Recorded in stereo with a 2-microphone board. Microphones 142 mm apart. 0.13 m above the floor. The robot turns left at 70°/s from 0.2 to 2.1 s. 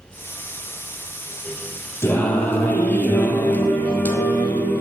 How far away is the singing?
About 0.8 m.